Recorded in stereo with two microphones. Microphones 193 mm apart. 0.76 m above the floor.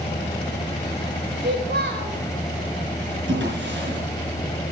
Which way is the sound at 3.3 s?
75° right (ahead or behind).